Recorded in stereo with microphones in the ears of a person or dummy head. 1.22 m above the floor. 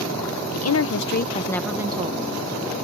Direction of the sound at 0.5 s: 80° left.